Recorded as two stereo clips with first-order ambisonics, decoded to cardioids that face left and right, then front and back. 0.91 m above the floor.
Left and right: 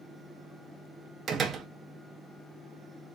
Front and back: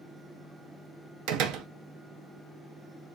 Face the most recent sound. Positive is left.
turn(degrees=-155)